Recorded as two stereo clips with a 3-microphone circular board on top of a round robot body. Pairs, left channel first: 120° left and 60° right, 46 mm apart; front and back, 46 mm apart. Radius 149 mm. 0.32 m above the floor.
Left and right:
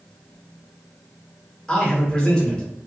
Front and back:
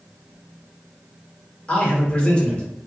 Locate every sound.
1.7 s a man speaking: 55° left, 1.2 m